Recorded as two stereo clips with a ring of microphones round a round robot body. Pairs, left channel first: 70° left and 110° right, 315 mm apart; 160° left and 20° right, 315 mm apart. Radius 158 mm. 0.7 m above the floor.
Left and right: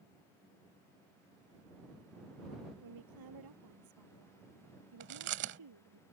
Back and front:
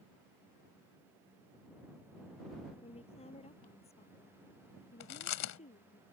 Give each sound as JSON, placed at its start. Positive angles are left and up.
{"t": 2.8, "sound": "a woman speaking", "azimuth_deg": -130}
{"t": 5.0, "sound": "chewing", "azimuth_deg": -165}